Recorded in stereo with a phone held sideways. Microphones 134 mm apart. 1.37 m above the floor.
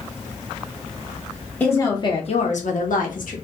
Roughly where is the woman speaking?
Centre.